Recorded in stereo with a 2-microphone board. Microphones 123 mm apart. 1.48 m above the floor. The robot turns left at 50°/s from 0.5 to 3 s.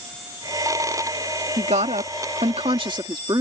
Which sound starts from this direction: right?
A woman speaking, at 1.6 s.